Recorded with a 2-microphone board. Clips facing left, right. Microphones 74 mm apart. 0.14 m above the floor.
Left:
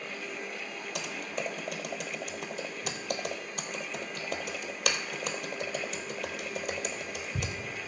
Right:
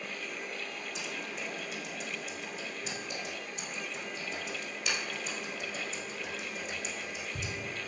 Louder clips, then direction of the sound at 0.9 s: Left 6 dB; 75° left (ahead or behind).